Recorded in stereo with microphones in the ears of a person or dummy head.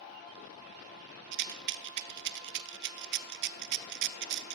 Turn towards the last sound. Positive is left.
turn(degrees=-60)  # may be behind; listen again after turning